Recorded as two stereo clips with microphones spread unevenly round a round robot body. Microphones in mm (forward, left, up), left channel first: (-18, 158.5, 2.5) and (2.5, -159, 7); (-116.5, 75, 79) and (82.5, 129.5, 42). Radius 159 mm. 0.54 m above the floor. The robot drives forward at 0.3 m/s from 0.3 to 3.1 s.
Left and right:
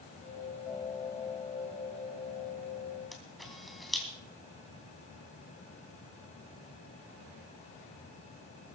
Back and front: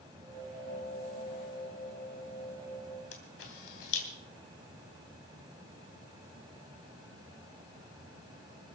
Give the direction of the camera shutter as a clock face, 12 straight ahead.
6 o'clock.